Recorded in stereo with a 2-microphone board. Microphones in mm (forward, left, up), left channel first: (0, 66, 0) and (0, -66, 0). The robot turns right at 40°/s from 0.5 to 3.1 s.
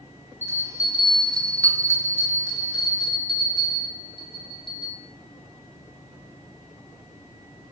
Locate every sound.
0.4 s a bell: 30° right, 0.5 m; by 4.9 s 75° left, 0.5 m